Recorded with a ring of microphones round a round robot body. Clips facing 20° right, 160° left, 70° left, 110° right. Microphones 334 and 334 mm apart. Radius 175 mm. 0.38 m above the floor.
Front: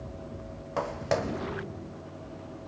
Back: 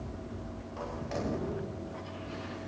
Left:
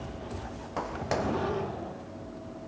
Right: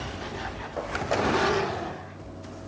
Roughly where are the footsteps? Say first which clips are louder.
Front 7 dB, right 4 dB; ahead.